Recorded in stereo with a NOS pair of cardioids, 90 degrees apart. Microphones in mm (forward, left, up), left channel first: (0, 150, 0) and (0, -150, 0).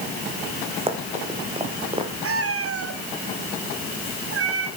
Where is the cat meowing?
50° right, 4 m.